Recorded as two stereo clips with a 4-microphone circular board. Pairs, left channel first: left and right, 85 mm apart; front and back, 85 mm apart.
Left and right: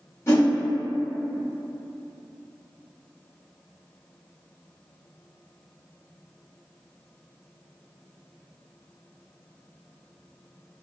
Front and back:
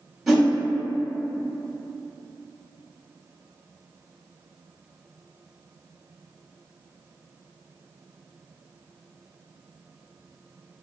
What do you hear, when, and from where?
0.3 s a whoosh: 90° left, 1.1 m